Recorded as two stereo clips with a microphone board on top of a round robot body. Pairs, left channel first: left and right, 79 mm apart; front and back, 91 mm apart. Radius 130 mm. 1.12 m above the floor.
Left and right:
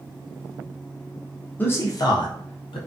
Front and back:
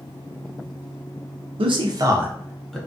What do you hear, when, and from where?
1.6 s a man speaking: 160° left, 0.6 m; by 2.8 s 85° left, 0.8 m